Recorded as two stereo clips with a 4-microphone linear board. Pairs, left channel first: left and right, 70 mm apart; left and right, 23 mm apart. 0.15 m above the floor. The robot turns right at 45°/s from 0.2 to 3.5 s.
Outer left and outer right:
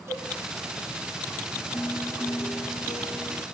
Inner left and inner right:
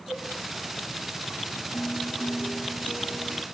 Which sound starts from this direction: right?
A cowbell, at 0.1 s.